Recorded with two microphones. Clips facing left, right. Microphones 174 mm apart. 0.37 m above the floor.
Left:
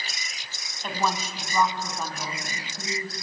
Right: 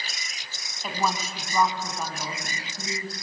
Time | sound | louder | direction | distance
0.8 | a woman speaking | even | 5° right (ahead or behind) | 2.5 m